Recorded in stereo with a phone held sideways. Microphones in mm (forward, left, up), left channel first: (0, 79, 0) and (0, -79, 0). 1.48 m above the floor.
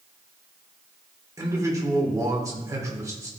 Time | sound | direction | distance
1.4 | a man speaking | 20° right (ahead or behind) | 1.6 m